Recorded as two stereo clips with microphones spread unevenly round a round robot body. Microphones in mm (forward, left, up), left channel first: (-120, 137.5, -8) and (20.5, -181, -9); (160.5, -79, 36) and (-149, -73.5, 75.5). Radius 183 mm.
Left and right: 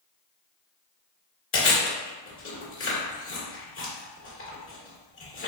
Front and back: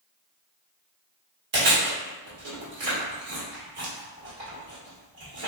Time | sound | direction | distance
1.5 | chewing | 155° left | 1.5 m